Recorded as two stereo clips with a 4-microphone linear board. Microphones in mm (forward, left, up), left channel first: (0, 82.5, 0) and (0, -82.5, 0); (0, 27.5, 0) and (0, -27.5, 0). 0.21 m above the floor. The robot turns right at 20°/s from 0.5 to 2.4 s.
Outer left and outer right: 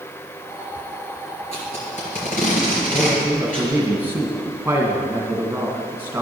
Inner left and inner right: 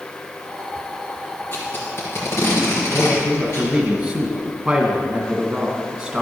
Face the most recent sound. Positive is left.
turn(degrees=-10)  # may be behind; listen again after turning